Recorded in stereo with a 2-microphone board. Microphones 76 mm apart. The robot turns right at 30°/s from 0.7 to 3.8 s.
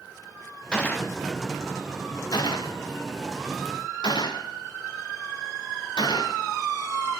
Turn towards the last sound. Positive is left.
turn(degrees=75)  # may be behind; listen again after turning